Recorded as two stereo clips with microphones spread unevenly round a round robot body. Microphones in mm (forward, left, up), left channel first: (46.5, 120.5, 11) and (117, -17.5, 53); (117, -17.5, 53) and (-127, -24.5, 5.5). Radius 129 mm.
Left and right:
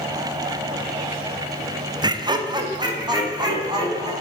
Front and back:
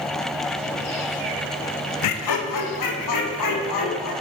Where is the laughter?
10° left, 0.6 m; by 4.1 s 5° left, 2.5 m.